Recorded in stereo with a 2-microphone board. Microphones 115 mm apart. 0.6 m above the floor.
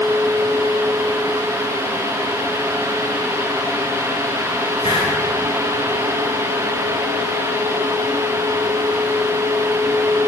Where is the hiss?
45° left (ahead or behind), 4.5 m.